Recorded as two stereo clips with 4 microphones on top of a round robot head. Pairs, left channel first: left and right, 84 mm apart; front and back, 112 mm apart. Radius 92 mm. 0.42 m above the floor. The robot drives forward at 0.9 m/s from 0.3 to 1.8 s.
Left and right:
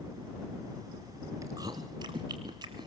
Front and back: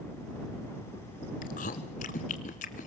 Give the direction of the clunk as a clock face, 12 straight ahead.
No clunk in this recording.